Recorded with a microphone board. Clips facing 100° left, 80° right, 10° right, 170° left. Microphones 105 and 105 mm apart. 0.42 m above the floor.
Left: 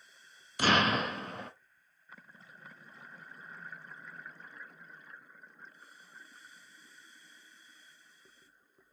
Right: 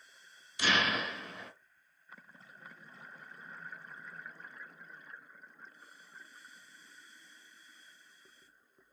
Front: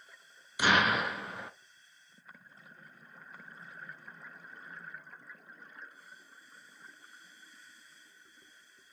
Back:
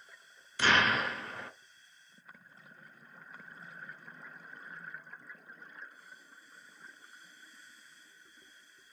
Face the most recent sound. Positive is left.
turn(degrees=65)